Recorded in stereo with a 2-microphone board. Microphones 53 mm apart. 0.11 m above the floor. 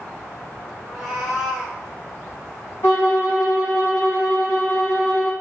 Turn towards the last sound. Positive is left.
turn(degrees=50)  # may be behind; listen again after turning